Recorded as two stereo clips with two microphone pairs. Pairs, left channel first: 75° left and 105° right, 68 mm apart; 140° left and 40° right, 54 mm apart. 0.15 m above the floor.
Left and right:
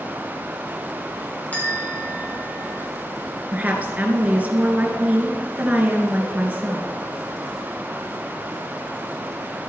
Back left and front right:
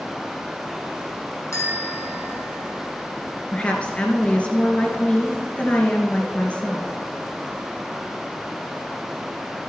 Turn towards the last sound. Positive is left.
turn(degrees=-160)